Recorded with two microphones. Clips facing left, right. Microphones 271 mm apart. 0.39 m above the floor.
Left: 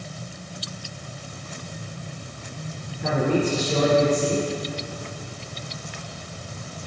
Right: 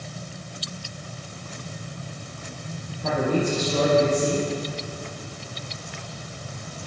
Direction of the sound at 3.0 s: 75° left (ahead or behind).